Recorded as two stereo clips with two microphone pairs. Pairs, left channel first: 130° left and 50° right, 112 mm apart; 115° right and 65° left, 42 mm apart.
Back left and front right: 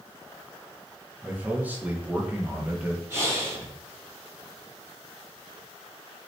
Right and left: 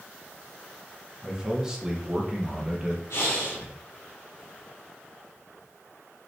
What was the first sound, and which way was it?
A man speaking, 15° left.